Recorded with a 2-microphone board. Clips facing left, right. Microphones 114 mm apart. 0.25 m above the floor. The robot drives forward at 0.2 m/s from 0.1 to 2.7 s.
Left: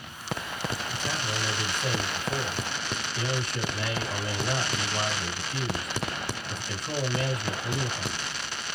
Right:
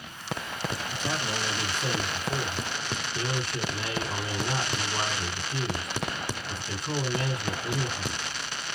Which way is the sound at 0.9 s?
30° right (ahead or behind).